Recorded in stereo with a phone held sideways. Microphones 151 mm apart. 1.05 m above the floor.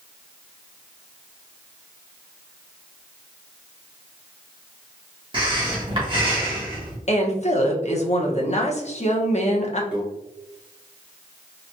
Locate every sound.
5.3 s breathing: 35° right (ahead or behind), 1.5 m
7.1 s a woman speaking: 50° left (ahead or behind), 0.9 m
9.9 s a microwave: 5° right (ahead or behind), 1.2 m